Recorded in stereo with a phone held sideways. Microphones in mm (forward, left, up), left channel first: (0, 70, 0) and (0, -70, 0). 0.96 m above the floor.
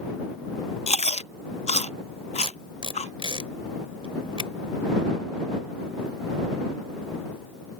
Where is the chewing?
50° left (ahead or behind).